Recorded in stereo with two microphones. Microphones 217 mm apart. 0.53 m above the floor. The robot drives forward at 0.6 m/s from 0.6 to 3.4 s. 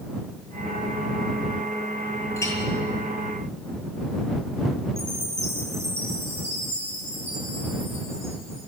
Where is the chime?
15° right (ahead or behind), 8.5 m.